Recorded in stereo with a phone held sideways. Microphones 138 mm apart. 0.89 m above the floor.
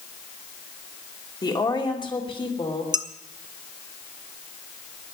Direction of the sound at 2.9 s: 30° right (ahead or behind).